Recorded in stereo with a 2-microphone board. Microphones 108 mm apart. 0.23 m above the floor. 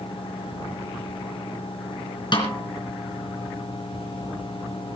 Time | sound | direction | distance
2.3 | a snare drum | 45° left (ahead or behind) | 3.5 m